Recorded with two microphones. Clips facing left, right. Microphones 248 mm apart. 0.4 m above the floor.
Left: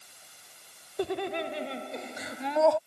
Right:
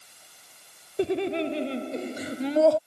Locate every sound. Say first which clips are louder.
1.0 s laughter: right 6 dB; 30° right (ahead or behind); by 2.8 s 40° right (ahead or behind)